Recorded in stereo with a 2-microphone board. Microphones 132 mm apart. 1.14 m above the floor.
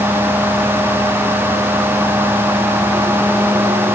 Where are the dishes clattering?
No dishes clattering in this recording.